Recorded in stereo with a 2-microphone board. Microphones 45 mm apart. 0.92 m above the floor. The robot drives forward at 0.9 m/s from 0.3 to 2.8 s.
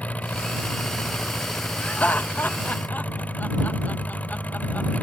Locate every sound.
0.0 s an engine running: 30° left (ahead or behind); by 5.0 s 35° left (ahead or behind)
1.8 s laughter: 35° left (ahead or behind); by 4.9 s 40° left (ahead or behind)